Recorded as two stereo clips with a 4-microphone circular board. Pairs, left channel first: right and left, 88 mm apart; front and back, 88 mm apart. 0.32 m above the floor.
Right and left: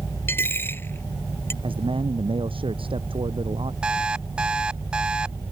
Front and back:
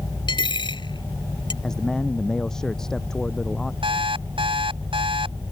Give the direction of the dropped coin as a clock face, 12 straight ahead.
1 o'clock.